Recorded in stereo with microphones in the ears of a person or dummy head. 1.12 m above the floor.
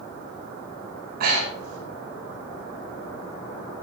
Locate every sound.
1.2 s breathing: 55° right (ahead or behind), 4.5 m